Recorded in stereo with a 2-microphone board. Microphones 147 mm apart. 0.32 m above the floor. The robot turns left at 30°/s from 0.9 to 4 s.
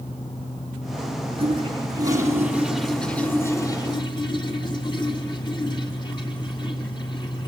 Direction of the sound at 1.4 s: 40° right (ahead or behind).